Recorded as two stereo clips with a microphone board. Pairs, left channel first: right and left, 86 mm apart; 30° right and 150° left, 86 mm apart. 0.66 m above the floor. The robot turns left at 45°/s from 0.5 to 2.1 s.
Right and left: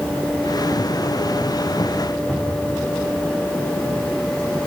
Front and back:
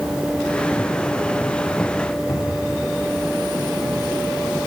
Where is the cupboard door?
5° left, 5.5 m.